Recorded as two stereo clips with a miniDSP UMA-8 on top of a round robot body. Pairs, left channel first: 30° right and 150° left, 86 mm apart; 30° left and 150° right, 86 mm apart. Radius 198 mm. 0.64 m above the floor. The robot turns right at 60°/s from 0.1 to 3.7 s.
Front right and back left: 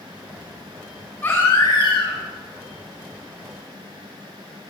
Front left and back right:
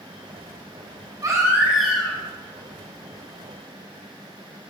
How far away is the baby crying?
About 4 m.